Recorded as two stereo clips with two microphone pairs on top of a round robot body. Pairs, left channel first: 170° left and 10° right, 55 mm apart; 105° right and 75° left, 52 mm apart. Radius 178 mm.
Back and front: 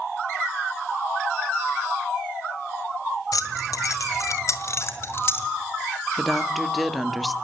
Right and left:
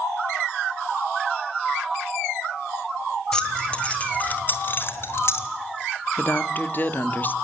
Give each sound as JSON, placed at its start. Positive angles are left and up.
{"t": 3.3, "sound": "keys jangling", "azimuth_deg": 180, "distance_m": 2.0}
{"t": 6.2, "sound": "a woman speaking", "azimuth_deg": -90, "distance_m": 1.7}